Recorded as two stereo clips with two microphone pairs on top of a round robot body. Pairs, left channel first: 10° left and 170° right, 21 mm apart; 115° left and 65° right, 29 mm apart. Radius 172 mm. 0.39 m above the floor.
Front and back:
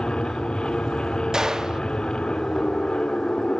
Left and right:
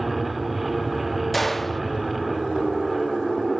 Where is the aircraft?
20° left.